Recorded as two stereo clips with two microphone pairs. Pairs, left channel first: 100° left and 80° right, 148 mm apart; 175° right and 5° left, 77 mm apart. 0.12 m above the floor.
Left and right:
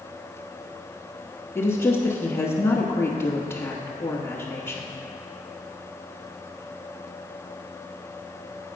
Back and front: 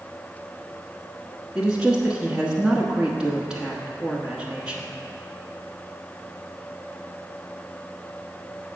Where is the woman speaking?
70° left, 1.1 m.